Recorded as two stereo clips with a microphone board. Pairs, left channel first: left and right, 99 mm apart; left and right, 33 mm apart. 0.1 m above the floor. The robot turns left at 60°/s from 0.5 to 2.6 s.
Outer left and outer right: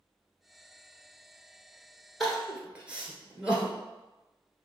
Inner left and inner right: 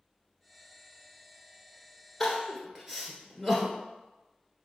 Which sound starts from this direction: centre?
Crying, at 2.2 s.